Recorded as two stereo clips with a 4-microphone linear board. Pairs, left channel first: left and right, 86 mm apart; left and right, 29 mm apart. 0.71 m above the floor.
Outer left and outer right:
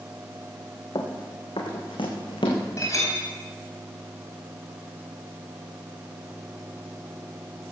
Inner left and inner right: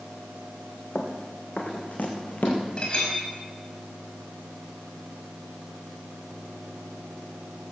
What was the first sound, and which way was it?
Running footsteps, 60° left (ahead or behind).